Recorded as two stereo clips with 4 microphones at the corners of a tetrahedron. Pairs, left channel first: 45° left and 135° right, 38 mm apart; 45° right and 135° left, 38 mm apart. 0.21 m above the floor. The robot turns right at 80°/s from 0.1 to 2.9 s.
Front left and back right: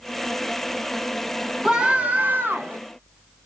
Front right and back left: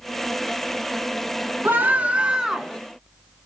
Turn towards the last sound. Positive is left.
turn(degrees=-115)